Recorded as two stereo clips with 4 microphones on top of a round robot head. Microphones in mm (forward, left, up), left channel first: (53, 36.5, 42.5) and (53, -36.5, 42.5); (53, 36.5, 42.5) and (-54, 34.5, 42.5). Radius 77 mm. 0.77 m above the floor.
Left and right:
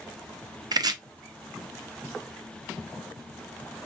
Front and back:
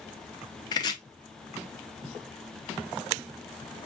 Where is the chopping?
60° right, 0.6 m.